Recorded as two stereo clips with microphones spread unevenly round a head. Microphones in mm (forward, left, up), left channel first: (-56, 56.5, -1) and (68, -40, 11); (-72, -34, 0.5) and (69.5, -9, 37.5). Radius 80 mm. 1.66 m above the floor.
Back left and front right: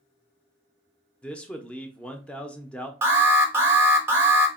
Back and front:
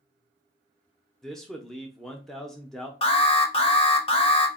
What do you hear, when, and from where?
1.2 s a man speaking: 60° left, 0.6 m
3.0 s an alarm: 115° right, 0.8 m